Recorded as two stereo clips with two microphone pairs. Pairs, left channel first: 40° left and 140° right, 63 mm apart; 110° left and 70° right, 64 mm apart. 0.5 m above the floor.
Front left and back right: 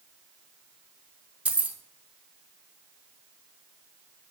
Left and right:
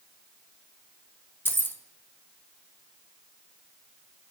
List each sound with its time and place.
1.4 s keys jangling: 155° left, 0.5 m